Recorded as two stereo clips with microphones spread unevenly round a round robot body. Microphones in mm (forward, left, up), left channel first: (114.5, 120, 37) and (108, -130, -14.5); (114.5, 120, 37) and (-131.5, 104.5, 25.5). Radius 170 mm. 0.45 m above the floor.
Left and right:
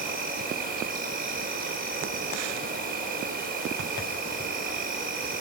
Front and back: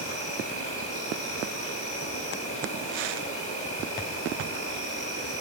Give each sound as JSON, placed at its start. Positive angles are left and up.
{"t": 0.0, "sound": "an insect", "azimuth_deg": -60, "distance_m": 1.7}